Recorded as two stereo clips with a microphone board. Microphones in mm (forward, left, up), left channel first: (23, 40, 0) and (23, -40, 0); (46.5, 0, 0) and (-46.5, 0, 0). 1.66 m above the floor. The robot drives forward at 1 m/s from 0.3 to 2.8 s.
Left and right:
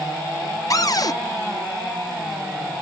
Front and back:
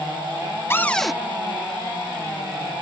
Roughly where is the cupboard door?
Ahead left.